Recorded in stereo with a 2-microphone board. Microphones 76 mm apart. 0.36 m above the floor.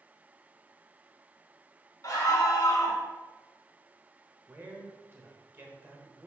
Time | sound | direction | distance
2.0 | a scream | 50° left (ahead or behind) | 1.8 m
4.5 | a man speaking | 25° right (ahead or behind) | 1.4 m